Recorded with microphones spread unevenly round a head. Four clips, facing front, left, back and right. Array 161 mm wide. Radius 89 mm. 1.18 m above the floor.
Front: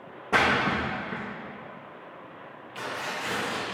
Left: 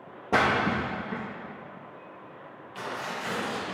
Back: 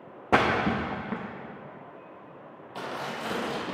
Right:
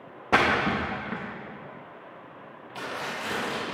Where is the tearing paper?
160° right, 1.1 m.